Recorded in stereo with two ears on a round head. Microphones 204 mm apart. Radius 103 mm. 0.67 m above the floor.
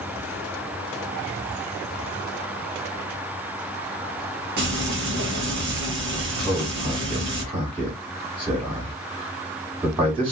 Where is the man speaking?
20° right (ahead or behind), 1.2 m.